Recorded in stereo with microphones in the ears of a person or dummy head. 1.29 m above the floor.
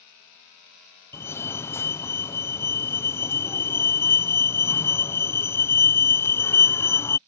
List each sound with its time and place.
1.1 s a fire alarm: 15° left (ahead or behind)